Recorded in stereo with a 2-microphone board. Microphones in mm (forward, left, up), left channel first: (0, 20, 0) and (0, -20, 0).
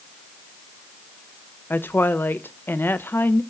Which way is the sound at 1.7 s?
65° left (ahead or behind).